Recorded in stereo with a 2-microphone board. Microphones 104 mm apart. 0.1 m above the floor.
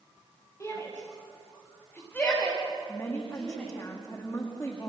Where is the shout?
30° left (ahead or behind), 10 m; by 3.7 s 5° left (ahead or behind), 9 m.